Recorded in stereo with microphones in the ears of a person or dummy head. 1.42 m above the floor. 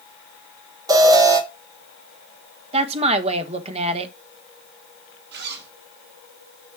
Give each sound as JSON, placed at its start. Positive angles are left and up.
{"t": 0.9, "sound": "an alarm", "side_deg": -25, "distance_m": 2.5}
{"t": 2.7, "sound": "a woman speaking", "side_deg": -40, "distance_m": 1.4}
{"t": 5.3, "sound": "a zipper", "side_deg": -65, "distance_m": 2.5}